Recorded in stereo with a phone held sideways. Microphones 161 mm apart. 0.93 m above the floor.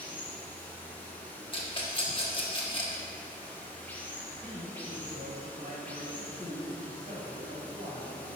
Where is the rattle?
30° left (ahead or behind), 1.0 m.